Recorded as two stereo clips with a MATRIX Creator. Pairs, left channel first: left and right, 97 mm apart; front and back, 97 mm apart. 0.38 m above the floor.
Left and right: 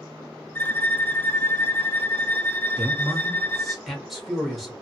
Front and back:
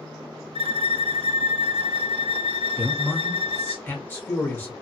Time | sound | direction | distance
0.6 | a violin | 155° left | 0.5 m
2.8 | a man speaking | straight ahead | 0.8 m